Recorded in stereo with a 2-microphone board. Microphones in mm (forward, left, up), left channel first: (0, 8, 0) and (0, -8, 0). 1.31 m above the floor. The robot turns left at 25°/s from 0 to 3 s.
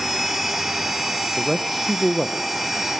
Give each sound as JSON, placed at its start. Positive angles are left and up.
{"t": 1.4, "sound": "a man speaking", "side_deg": 20, "distance_m": 0.6}